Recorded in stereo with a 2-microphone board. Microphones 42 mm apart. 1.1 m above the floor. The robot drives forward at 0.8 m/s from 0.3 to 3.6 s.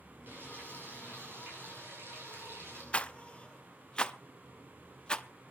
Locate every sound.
0.3 s frying: 55° right (ahead or behind), 7.5 m; by 2.8 s 65° right (ahead or behind), 6.5 m
2.9 s a rattle: 30° left (ahead or behind), 0.5 m; by 5.2 s 20° left (ahead or behind), 0.7 m